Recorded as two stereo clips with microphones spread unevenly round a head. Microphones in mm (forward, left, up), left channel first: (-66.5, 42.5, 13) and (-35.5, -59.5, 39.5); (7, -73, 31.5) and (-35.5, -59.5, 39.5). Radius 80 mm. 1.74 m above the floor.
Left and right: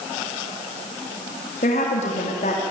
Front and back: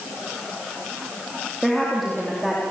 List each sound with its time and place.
1.6 s a woman speaking: 75° left, 3.5 m